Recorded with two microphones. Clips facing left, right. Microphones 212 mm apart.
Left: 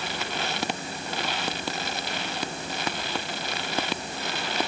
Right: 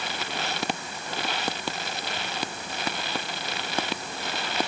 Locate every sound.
Only background noise.